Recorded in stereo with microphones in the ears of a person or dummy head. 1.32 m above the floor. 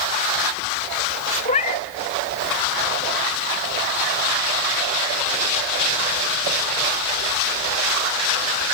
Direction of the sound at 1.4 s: 25° left (ahead or behind).